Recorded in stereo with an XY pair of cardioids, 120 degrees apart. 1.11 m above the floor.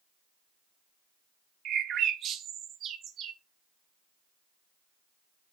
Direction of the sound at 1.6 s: 60° right.